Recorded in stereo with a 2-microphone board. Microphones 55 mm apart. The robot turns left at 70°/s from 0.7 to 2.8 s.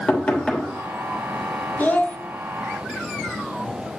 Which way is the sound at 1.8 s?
30° left (ahead or behind).